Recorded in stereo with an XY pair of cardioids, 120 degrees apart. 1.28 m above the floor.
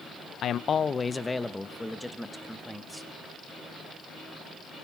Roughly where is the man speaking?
Ahead left.